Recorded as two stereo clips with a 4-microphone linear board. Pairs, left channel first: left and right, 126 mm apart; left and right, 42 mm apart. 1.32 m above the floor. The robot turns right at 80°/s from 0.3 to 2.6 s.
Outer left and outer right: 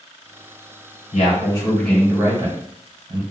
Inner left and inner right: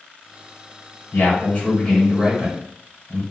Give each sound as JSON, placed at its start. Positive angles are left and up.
{"t": 1.1, "sound": "a man speaking", "azimuth_deg": 115, "distance_m": 1.8}